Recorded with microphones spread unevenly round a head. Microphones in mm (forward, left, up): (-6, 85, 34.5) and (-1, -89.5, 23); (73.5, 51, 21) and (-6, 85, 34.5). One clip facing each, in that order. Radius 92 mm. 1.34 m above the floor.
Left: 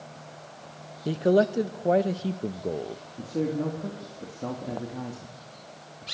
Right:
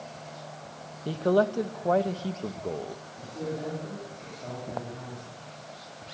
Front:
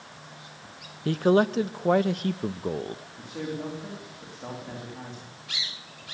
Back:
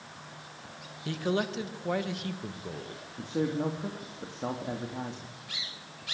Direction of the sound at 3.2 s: 100° left.